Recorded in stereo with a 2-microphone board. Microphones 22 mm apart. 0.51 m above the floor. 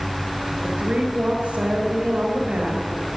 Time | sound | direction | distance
0.6 | a woman speaking | 65° right (ahead or behind) | 2.5 m